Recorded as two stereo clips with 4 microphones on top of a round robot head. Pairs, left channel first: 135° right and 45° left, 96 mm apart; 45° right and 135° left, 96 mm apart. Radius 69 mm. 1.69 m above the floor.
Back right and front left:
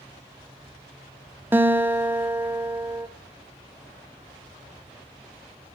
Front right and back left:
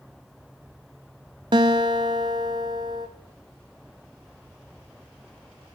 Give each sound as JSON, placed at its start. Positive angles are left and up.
{"t": 1.5, "sound": "a guitar", "azimuth_deg": 110, "distance_m": 0.8}